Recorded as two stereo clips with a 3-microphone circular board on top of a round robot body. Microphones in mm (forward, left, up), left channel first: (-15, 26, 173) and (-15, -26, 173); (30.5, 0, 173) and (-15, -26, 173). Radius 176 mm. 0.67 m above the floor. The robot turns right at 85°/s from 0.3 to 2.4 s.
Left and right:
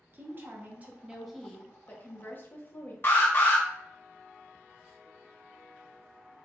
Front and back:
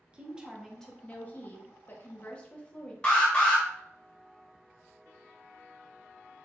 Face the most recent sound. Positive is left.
turn(degrees=90)